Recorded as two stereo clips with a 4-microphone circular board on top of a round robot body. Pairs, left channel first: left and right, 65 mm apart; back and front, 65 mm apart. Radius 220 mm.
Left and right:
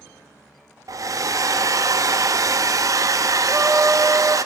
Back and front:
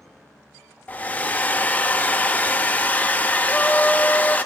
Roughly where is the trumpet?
Behind right.